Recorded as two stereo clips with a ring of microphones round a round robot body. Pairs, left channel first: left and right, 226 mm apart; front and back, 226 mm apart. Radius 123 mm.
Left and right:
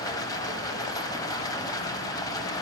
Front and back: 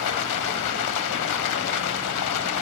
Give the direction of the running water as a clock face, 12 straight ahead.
12 o'clock.